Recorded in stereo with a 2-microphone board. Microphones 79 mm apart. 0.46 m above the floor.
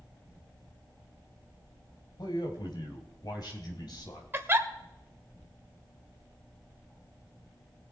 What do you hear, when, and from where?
2.2 s a man speaking: 60° left (ahead or behind), 2.5 m
4.3 s a giggle: 30° right (ahead or behind), 1.2 m